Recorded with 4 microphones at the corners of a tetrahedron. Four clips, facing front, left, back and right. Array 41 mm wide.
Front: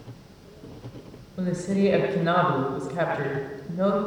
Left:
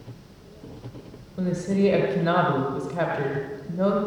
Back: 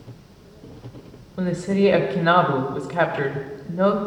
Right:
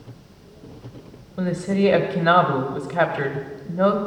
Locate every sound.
1.4 s a woman speaking: 140° right, 1.9 m